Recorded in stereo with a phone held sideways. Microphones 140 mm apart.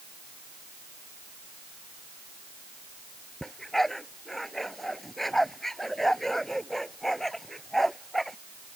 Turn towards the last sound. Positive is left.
turn(degrees=0)  # may be behind; listen again after turning